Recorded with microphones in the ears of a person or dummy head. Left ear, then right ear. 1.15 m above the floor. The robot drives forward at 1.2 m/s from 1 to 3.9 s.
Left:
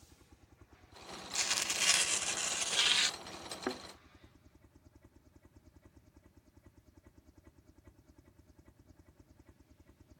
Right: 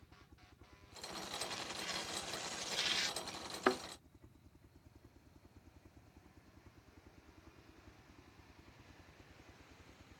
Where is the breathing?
No breathing in this recording.